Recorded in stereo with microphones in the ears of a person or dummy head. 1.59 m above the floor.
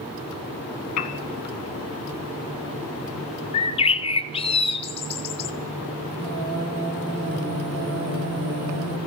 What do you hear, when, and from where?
1.0 s a piano: 45° left (ahead or behind), 1.5 m
3.5 s a bird: 30° left (ahead or behind), 0.7 m
6.1 s singing: 45° right (ahead or behind), 1.7 m